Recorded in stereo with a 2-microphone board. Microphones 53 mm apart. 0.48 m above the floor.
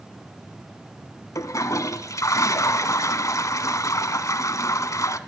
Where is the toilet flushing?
80° left, 1.0 m.